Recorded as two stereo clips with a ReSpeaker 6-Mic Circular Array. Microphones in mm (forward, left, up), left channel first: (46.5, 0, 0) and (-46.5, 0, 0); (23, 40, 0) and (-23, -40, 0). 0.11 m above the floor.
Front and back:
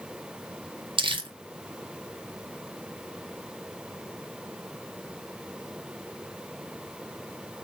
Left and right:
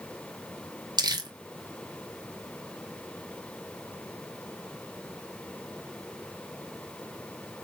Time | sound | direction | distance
1.0 | crumpling | 160° right | 1.0 m